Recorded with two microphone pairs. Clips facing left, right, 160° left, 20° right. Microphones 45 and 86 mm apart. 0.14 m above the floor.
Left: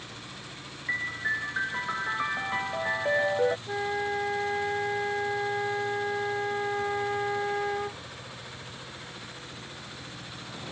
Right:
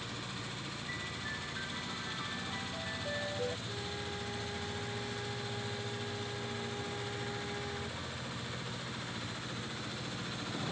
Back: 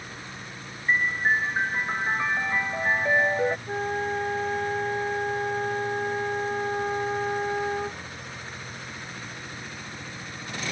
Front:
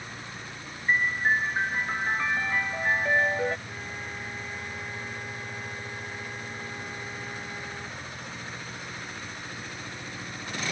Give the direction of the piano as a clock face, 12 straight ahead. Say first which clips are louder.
Left 14 dB, back 1 dB; 9 o'clock.